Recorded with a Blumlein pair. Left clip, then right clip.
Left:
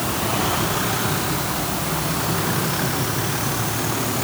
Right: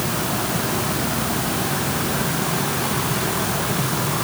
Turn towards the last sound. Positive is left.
No sound to turn to.